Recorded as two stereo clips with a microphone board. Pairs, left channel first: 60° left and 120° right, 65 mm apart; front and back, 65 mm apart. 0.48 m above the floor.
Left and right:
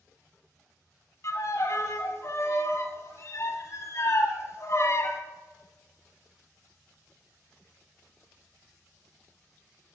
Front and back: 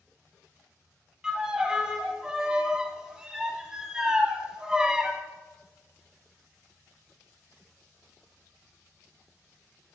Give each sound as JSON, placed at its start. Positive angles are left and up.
{"t": 1.2, "sound": "a violin", "azimuth_deg": 100, "distance_m": 1.0}